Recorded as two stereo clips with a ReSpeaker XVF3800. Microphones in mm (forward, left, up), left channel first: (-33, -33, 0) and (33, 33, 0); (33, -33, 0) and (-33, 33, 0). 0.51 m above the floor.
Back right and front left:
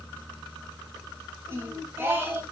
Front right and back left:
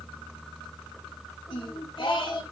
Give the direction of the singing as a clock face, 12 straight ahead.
1 o'clock.